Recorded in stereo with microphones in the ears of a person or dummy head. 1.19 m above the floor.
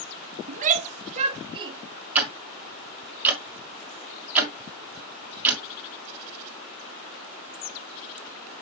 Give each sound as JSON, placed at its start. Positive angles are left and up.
{"t": 0.5, "sound": "a shout", "side_deg": -45, "distance_m": 0.7}
{"t": 2.1, "sound": "ticking", "side_deg": -15, "distance_m": 1.4}